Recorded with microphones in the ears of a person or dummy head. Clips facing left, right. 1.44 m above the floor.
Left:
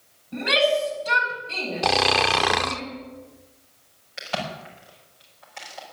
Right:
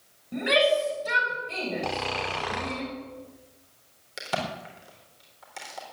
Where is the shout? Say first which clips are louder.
Left 1 dB; 25° right (ahead or behind), 6.5 m.